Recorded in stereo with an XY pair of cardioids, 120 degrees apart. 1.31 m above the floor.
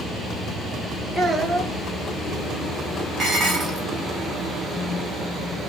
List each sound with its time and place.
1.1 s a child speaking: 20° right, 1.0 m
3.2 s dishes clattering: 45° right, 1.2 m